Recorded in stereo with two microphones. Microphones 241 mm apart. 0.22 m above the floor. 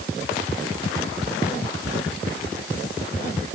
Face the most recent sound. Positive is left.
No sound to turn to.